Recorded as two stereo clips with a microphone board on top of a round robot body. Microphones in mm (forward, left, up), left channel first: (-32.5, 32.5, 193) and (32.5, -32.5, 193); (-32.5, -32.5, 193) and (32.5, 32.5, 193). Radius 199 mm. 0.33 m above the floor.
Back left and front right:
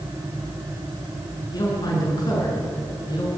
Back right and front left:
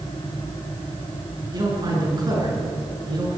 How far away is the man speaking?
About 7.5 m.